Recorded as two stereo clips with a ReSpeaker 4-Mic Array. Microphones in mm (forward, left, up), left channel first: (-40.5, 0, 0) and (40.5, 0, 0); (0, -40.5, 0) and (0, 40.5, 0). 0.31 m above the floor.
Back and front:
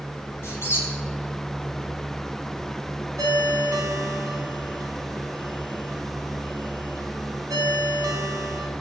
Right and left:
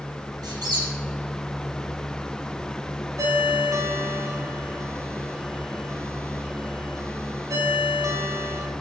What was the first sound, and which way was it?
A squeak, 120° left.